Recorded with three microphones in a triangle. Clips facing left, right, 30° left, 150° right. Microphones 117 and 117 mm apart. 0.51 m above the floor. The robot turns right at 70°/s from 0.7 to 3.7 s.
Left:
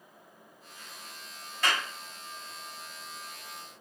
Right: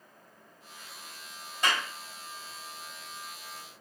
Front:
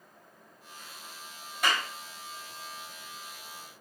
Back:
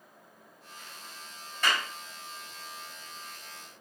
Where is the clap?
35° right, 1.1 m; by 1.9 s 20° right, 1.1 m.